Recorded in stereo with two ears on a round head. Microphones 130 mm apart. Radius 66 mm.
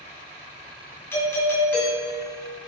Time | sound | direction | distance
1.1 | a doorbell | 15° left (ahead or behind) | 2.5 m